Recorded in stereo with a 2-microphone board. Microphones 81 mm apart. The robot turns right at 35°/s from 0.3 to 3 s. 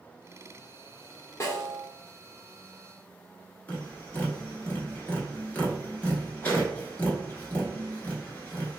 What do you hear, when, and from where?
1.4 s a snare drum: 35° left (ahead or behind), 1.1 m
3.7 s tapping: 20° left (ahead or behind), 1.0 m